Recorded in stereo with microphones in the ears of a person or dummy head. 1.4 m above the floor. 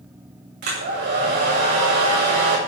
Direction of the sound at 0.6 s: 55° right (ahead or behind).